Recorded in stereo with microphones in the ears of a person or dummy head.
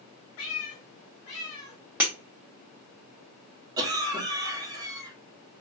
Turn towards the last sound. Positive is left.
turn(degrees=-20)  # may be behind; listen again after turning